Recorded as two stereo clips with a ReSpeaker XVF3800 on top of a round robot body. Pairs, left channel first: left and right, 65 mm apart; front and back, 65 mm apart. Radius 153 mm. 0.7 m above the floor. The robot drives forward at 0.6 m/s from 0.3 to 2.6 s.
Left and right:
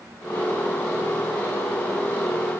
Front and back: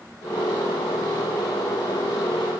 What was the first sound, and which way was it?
Only background noise.